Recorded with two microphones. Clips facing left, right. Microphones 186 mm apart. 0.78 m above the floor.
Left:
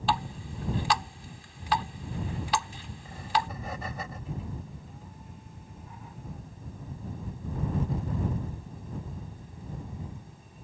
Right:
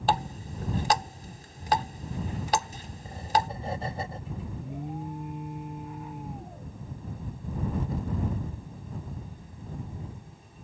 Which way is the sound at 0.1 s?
45° right (ahead or behind).